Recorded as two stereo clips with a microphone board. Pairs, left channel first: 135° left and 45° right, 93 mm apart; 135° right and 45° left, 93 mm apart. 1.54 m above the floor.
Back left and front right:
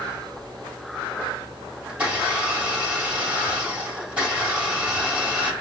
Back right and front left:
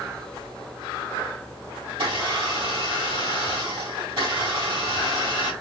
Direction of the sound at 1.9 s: 30° left.